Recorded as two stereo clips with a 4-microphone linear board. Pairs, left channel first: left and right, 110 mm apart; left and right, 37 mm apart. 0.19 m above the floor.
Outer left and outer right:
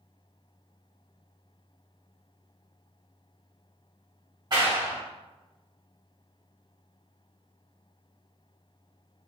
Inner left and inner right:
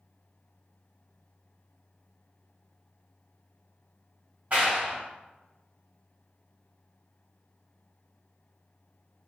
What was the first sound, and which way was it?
A clap, 40° right (ahead or behind).